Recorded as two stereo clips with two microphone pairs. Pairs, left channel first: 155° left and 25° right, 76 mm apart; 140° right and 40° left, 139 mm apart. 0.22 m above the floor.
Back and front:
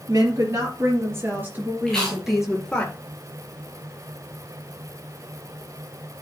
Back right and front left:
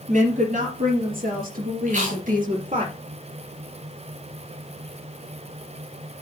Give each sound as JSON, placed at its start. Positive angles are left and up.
{"t": 0.1, "sound": "a woman speaking", "azimuth_deg": 15, "distance_m": 4.0}
{"t": 1.9, "sound": "chewing", "azimuth_deg": 70, "distance_m": 6.0}